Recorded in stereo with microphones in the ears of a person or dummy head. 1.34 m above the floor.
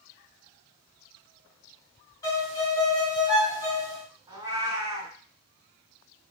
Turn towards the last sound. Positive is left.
turn(degrees=-20)  # may be behind; listen again after turning